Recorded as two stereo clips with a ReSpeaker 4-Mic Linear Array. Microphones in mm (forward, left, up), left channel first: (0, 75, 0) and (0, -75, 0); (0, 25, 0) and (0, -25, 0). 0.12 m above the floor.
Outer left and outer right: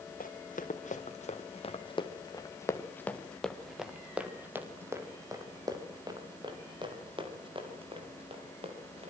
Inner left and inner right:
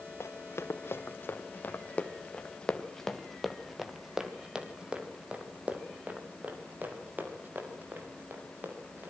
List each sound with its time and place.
0.2 s running footsteps: 65° left (ahead or behind), 4 m; by 9.1 s 40° right (ahead or behind), 9 m